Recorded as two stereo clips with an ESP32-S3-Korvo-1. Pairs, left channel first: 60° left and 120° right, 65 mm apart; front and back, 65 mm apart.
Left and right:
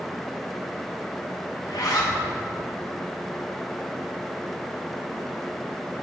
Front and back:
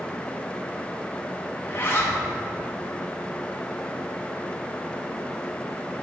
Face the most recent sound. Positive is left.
turn(degrees=55)